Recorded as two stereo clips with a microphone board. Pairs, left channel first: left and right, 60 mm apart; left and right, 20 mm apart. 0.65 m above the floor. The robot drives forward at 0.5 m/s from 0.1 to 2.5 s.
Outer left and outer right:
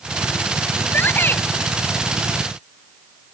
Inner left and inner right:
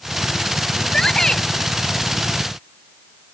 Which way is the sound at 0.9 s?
35° left (ahead or behind).